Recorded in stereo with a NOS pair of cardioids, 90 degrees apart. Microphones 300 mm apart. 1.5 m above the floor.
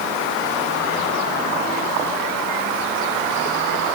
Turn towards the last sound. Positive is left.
No sound to turn to.